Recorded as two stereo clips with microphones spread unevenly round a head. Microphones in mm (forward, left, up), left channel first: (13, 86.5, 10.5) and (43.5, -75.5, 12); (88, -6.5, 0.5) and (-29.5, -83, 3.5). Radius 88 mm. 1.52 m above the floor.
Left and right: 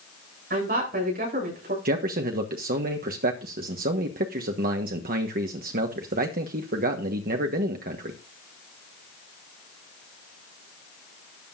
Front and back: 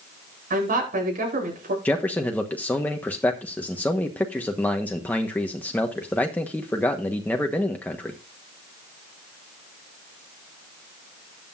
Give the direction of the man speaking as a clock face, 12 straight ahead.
2 o'clock.